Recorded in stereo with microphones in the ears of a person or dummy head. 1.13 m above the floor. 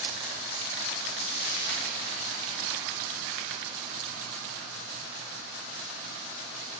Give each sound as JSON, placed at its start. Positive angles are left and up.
{"t": 1.2, "sound": "frying", "side_deg": -65, "distance_m": 2.5}